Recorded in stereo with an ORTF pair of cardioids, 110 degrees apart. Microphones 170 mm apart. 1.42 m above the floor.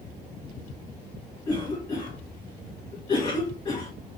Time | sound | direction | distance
1.4 | a cough | 25° left | 2.5 m